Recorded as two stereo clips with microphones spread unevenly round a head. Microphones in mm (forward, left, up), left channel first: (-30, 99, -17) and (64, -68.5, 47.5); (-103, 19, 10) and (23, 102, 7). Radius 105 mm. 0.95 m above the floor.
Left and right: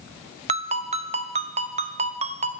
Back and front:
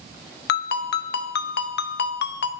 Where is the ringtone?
130° right, 0.6 m.